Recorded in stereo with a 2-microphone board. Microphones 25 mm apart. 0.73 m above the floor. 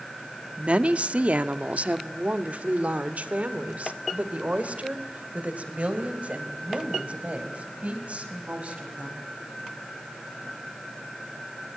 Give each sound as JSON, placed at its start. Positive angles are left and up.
{"t": 0.6, "sound": "a woman speaking", "side_deg": -50, "distance_m": 1.1}